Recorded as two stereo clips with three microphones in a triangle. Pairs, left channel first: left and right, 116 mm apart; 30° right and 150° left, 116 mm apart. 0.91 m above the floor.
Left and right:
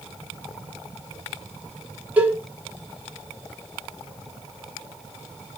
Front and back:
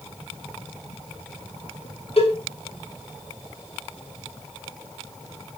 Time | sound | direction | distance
2.2 | a cowbell | 15° right | 1.6 m